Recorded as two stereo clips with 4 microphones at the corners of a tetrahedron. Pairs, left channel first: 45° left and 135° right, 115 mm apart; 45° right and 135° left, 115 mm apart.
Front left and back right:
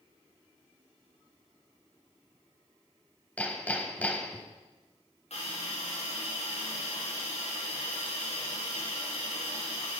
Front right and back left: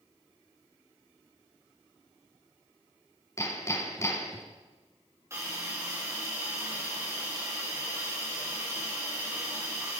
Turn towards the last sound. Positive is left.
turn(degrees=70)